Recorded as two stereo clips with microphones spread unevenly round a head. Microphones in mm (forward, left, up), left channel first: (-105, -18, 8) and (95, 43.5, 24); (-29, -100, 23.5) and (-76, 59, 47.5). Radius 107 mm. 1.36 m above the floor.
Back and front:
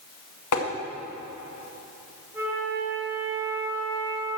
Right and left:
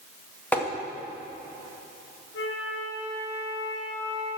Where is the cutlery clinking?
I don't hear cutlery clinking.